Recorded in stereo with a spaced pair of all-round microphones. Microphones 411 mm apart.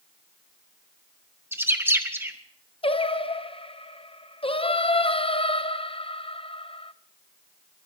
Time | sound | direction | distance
1.5 | a bird | 5° right (ahead or behind) | 1.6 m
2.8 | singing | 15° left (ahead or behind) | 0.7 m